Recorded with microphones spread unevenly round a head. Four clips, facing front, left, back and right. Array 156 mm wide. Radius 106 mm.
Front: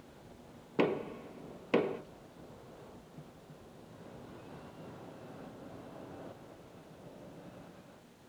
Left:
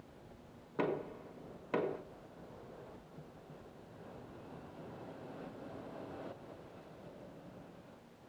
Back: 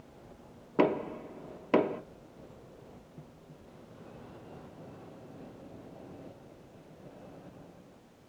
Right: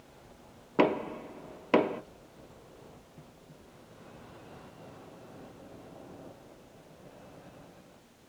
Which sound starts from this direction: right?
Knocking, at 0.8 s.